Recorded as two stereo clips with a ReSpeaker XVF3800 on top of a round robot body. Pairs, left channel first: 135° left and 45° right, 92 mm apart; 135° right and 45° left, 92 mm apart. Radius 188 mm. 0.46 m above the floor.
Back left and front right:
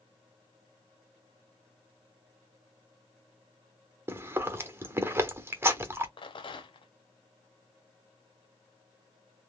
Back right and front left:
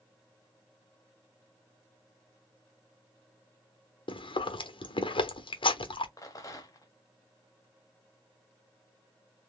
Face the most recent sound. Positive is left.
turn(degrees=170)